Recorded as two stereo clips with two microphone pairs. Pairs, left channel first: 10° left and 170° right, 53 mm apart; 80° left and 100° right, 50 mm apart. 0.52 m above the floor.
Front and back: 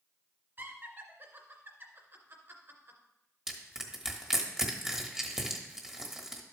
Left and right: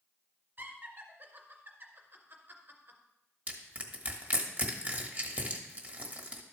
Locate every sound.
0.6 s laughter: 140° right, 2 m
3.5 s crushing: 110° right, 1.2 m